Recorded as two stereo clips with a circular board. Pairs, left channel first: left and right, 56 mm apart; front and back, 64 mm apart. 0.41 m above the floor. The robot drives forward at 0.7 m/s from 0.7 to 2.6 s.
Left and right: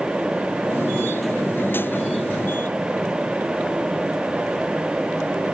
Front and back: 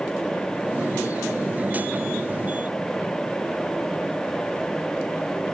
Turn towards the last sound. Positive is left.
No sound to turn to.